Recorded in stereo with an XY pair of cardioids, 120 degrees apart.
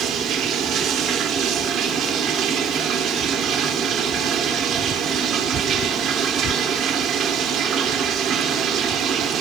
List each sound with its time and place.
0.0 s running water: 65° right, 2.5 m